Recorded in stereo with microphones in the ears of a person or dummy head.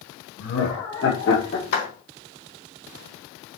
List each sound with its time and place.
0.4 s laughter: 75° left (ahead or behind), 2 m; by 1.6 s 60° left (ahead or behind), 1.8 m
1.7 s a clap: 80° left, 3.5 m